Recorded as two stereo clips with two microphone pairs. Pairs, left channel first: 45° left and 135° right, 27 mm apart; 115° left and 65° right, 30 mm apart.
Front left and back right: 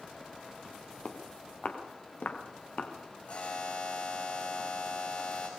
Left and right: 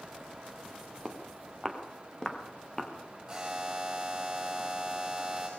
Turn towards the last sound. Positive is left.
turn(degrees=15)